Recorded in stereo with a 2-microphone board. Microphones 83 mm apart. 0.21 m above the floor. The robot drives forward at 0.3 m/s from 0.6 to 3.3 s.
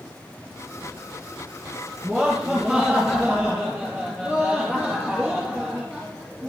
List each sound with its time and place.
2.0 s laughter: 15° right (ahead or behind), 4.5 m